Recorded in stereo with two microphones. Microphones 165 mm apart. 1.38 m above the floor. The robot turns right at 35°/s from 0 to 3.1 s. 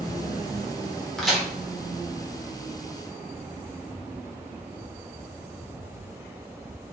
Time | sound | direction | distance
1.2 | a crack | centre (ahead or behind) | 1.1 m